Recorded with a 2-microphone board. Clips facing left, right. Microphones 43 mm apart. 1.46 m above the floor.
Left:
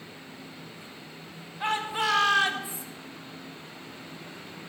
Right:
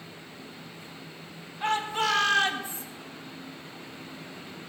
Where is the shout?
15° left (ahead or behind), 2 m; by 2.9 s 5° left (ahead or behind), 1.6 m.